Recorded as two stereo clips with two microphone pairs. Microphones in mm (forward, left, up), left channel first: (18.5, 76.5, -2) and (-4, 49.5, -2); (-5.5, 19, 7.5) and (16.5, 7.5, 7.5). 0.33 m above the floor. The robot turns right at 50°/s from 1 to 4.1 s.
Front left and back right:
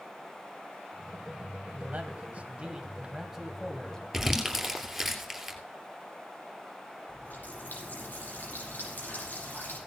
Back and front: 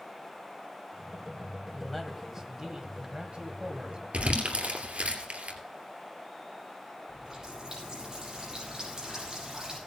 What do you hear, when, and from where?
1.7 s a man speaking: 125° right, 2.0 m; by 4.0 s 10° right, 2.0 m
4.1 s crumpling: 40° right, 3 m
7.1 s a running tap: 35° left, 7.5 m